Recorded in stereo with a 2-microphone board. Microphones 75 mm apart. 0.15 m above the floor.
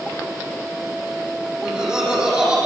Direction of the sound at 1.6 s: 10° right (ahead or behind).